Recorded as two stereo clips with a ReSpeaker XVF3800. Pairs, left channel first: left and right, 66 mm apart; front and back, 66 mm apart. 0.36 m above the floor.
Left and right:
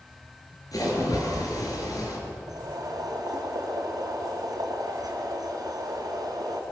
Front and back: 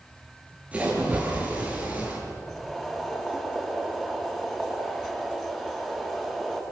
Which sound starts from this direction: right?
Boiling, at 2.5 s.